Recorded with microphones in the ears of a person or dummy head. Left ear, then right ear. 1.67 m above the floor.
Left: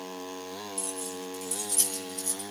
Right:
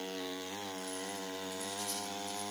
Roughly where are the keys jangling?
Left.